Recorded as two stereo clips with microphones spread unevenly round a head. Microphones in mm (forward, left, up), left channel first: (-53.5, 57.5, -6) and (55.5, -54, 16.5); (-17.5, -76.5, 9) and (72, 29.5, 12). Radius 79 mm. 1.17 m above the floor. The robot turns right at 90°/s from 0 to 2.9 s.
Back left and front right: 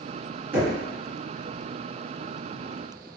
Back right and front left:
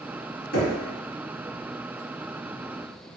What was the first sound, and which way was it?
Knocking, 125° right.